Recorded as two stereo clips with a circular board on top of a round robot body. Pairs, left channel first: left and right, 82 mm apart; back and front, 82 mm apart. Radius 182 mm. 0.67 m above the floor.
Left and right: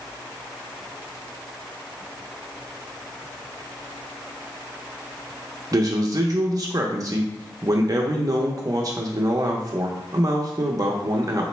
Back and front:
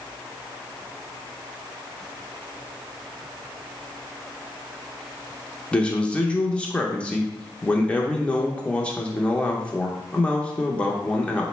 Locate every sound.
5.7 s a man speaking: 110° right, 0.7 m